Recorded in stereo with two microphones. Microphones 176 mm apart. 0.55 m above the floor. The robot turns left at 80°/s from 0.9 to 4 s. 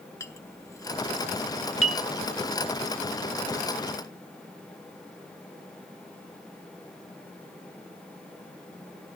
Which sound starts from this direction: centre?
A clink, at 0.2 s.